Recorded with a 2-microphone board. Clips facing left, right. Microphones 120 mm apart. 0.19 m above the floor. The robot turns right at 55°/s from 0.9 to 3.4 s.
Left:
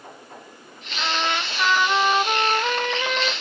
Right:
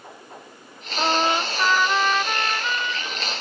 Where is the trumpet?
45° right; by 3.3 s 85° left.